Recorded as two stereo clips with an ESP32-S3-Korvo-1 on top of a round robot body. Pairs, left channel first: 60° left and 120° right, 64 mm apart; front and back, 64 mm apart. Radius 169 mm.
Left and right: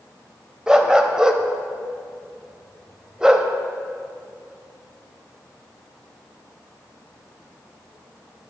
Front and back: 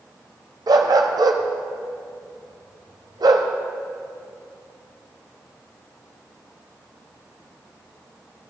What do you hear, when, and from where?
0.7 s a dog barking: 160° left, 0.8 m